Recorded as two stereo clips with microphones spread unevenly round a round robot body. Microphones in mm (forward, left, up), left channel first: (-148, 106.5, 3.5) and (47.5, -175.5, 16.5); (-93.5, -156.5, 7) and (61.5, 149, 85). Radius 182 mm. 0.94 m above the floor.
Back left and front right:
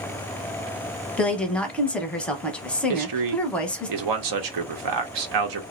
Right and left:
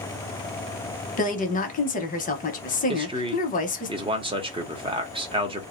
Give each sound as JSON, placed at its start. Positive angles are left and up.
{"t": 1.2, "sound": "a woman speaking", "azimuth_deg": -150, "distance_m": 0.7}
{"t": 2.9, "sound": "a man speaking", "azimuth_deg": -20, "distance_m": 0.7}